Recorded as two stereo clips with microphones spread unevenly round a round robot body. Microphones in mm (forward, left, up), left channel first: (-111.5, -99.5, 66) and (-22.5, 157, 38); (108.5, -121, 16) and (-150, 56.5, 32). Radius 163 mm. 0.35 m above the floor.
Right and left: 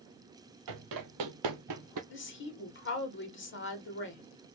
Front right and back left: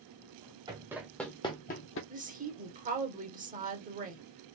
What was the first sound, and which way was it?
Running footsteps, 70° left.